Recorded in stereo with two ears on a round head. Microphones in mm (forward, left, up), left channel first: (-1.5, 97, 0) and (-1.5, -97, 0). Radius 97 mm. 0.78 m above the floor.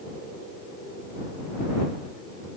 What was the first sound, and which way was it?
Only background noise.